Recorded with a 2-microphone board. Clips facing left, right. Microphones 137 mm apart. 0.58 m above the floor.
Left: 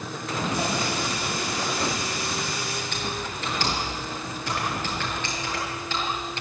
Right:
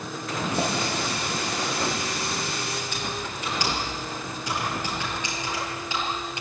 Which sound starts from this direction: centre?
Typing on a keyboard, at 2.9 s.